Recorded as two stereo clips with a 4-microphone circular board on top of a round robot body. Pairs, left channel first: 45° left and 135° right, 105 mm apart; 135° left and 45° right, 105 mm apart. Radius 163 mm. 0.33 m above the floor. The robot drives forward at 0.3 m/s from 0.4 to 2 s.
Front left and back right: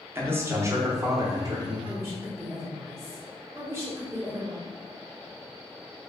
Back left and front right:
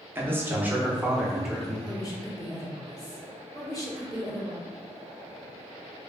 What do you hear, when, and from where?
0.1 s a man speaking: 95° right, 0.9 m; by 1.8 s 140° right, 1.0 m
1.9 s a woman speaking: 170° left, 1.4 m